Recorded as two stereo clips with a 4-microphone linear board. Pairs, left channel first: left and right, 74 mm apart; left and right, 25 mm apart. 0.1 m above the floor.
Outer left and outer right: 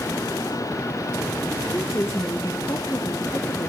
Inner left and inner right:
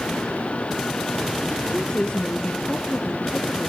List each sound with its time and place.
1.7 s a woman speaking: 35° left (ahead or behind), 1.5 m; by 3.7 s 70° left (ahead or behind), 3 m